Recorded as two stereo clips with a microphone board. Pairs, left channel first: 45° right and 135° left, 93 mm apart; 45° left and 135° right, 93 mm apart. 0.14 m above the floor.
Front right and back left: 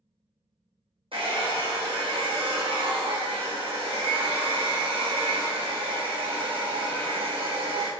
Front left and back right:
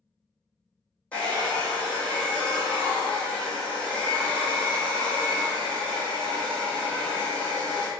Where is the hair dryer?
120° left, 1.1 m.